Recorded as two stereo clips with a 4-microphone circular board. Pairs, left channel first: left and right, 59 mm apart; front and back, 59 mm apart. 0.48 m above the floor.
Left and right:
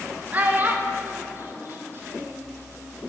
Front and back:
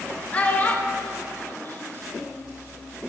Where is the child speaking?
50° right, 1.0 m; by 2.5 s 45° right, 2 m.